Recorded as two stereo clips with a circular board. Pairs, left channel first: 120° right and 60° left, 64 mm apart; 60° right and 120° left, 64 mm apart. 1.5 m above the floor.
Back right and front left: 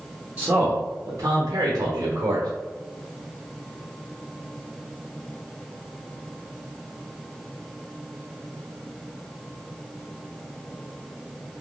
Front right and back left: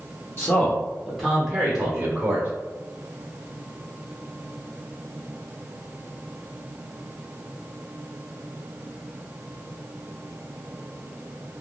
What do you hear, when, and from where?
0.4 s a man speaking: 10° right, 0.9 m; by 2.5 s 70° left, 1.2 m